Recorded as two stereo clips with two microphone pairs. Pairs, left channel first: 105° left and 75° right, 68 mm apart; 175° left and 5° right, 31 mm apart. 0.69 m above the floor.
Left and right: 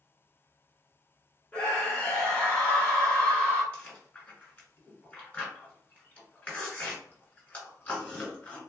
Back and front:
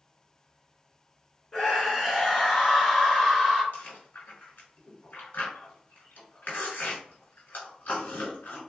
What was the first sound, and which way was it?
A scream, 140° left.